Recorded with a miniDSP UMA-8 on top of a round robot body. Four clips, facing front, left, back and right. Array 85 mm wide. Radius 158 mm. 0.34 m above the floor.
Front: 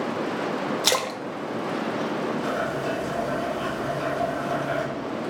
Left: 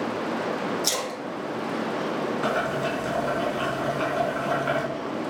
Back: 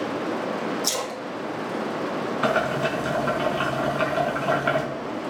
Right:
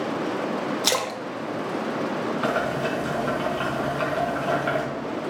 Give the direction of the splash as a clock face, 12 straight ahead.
1 o'clock.